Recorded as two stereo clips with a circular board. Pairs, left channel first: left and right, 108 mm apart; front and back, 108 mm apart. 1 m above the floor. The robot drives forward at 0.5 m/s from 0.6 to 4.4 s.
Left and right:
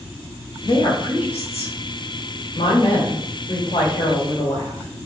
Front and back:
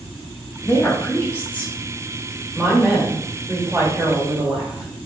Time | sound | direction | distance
0.6 | a woman speaking | 60° left | 1.8 m